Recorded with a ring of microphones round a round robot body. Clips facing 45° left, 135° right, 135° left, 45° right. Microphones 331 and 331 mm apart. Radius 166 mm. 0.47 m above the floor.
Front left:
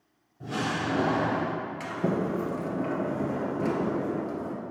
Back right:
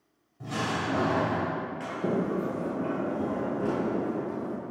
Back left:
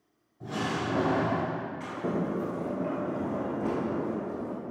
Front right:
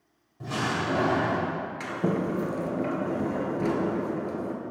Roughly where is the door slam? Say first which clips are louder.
Front left 1 dB, front right 1 dB; right.